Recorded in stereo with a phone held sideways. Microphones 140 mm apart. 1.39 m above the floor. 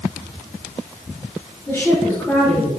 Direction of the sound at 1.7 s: 20° left (ahead or behind).